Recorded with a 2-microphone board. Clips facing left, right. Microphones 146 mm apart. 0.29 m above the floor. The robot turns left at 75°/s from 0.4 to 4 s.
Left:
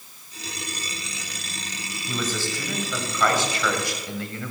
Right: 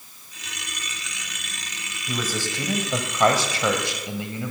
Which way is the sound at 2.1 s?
5° right.